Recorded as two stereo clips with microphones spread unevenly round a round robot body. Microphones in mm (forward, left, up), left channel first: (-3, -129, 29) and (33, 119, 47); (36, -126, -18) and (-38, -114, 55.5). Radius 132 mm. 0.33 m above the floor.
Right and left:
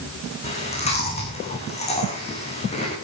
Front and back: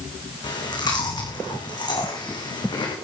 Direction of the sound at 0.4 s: 30° right.